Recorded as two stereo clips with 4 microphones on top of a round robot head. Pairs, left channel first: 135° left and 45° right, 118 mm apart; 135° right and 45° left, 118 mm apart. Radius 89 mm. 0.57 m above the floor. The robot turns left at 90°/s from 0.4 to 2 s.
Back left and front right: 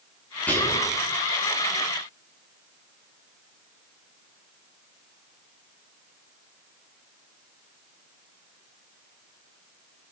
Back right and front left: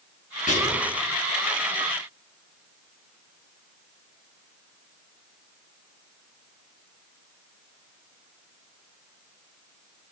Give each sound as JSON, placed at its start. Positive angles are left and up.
{"t": 0.5, "sound": "whispering", "azimuth_deg": -150, "distance_m": 7.0}